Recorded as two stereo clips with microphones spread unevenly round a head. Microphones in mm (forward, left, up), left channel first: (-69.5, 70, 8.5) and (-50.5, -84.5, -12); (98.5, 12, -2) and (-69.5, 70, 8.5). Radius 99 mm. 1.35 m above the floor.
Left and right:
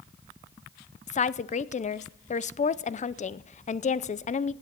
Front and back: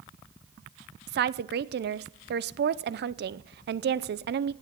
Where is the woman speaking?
140° left, 0.6 m.